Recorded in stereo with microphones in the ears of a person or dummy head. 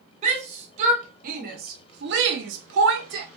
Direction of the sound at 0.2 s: 35° right (ahead or behind).